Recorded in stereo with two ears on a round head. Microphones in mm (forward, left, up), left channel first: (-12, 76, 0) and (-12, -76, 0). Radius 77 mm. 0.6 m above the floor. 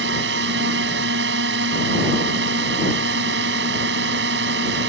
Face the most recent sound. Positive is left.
turn(degrees=-70)  # may be behind; listen again after turning